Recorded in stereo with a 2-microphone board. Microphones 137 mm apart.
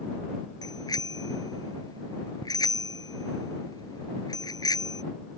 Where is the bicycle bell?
25° left (ahead or behind).